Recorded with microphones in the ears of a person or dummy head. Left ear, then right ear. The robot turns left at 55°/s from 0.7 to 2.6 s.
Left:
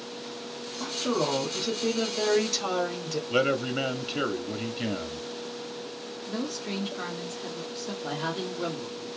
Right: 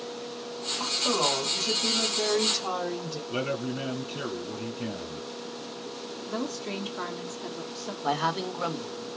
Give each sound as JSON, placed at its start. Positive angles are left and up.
{"t": 0.8, "sound": "a woman speaking", "azimuth_deg": -155, "distance_m": 2.5}
{"t": 3.3, "sound": "a man speaking", "side_deg": 35, "distance_m": 0.6}
{"t": 6.3, "sound": "a woman speaking", "side_deg": -15, "distance_m": 1.0}
{"t": 8.0, "sound": "a man speaking", "side_deg": -55, "distance_m": 1.4}